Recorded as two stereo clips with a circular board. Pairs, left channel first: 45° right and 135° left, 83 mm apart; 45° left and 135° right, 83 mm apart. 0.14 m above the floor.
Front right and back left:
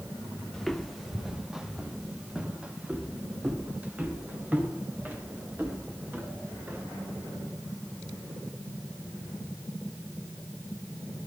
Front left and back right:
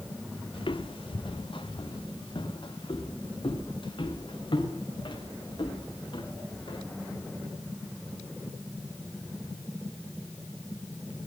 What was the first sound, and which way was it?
Footsteps, 40° left.